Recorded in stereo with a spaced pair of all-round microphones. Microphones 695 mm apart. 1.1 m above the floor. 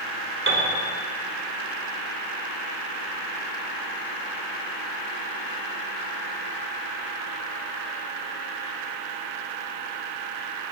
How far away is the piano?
About 3 m.